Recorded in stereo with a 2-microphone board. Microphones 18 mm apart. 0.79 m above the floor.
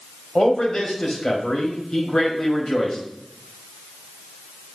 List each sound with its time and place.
0.3 s a man speaking: 45° left (ahead or behind), 5 m